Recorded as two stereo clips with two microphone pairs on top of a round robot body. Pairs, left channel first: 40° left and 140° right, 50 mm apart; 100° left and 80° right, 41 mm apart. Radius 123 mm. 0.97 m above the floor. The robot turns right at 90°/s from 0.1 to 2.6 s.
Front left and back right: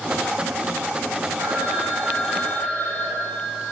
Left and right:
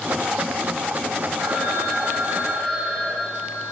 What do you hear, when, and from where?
1.4 s a phone ringing: 120° right, 9.5 m; by 3.7 s 10° right, 9.5 m